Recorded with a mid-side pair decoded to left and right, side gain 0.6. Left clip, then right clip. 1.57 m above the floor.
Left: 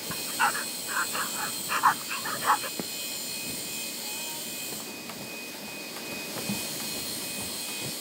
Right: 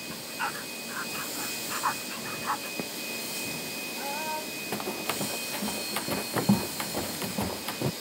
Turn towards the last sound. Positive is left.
turn(degrees=-50)